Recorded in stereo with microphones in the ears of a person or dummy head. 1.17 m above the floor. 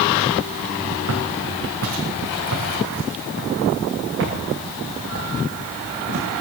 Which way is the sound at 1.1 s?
75° right (ahead or behind).